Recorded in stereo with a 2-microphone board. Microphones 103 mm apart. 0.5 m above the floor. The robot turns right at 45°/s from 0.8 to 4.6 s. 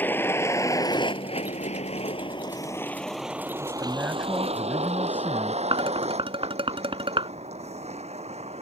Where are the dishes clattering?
55° right (ahead or behind).